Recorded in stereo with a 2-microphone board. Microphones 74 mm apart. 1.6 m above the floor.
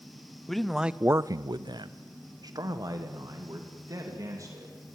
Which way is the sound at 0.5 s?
5° left (ahead or behind).